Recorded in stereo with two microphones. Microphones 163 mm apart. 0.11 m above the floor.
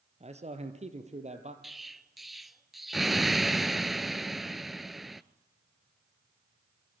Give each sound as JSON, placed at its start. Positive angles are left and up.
{"t": 0.2, "sound": "a man speaking", "side_deg": -40, "distance_m": 2.0}
{"t": 1.6, "sound": "an explosion", "side_deg": 0, "distance_m": 0.7}